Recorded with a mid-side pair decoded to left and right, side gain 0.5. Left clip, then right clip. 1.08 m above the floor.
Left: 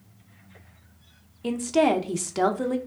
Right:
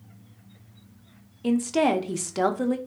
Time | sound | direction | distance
1.4 | a woman speaking | 5° right | 0.6 m